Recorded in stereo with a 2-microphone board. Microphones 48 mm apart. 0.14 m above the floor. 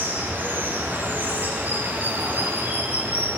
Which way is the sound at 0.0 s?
45° right (ahead or behind).